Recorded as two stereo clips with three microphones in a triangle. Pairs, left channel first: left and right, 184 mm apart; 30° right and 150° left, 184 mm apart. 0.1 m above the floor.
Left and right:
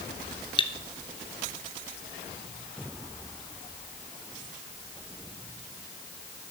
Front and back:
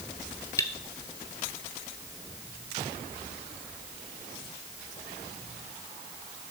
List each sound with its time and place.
0.6 s cutlery clinking: 35° left, 1.0 m